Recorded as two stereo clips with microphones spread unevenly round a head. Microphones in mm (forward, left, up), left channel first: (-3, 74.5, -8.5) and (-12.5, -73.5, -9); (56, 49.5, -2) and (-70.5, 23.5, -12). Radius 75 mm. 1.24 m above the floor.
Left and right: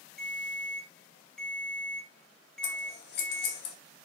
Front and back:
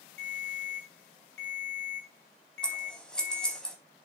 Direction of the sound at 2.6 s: 95° left.